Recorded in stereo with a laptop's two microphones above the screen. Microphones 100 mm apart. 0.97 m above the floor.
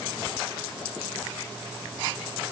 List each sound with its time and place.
Only background noise.